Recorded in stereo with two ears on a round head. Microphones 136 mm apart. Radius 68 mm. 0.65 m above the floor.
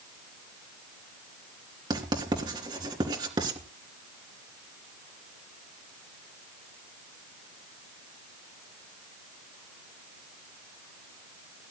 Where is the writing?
30° right (ahead or behind), 3 m.